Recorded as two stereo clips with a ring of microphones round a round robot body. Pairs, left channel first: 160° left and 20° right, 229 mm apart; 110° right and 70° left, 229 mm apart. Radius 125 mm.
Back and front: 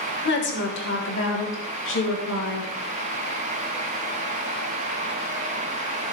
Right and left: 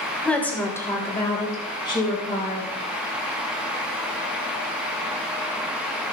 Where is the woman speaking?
165° left, 1.9 m; by 2.7 s straight behind, 3.5 m.